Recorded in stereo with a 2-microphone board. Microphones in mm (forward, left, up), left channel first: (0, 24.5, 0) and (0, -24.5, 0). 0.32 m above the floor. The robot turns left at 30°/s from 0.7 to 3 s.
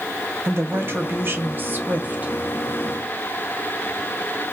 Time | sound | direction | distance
0.5 | a woman speaking | 90° right | 1.8 m